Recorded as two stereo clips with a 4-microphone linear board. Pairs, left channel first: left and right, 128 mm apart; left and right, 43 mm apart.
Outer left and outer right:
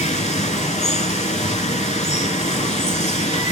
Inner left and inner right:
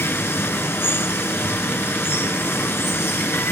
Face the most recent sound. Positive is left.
turn(degrees=65)  # may be behind; listen again after turning